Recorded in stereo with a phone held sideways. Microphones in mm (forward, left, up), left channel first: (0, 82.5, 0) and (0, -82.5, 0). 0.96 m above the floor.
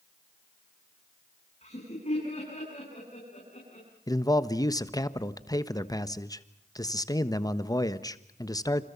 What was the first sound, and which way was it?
Laughter, 40° left (ahead or behind).